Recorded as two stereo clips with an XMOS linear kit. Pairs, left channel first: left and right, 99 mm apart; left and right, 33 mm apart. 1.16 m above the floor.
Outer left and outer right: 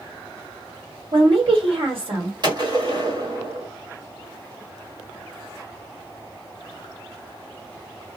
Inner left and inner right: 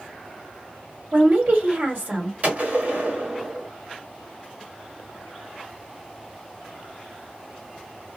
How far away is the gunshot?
About 1.3 m.